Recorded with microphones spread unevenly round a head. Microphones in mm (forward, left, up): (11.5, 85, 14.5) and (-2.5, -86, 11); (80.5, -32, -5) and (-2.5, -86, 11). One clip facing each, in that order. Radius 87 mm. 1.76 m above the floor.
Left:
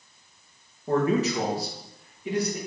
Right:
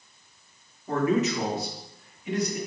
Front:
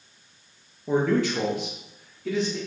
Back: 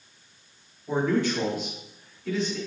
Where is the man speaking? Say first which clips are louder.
Left 1 dB, front 2 dB; 25° left, 2.5 m.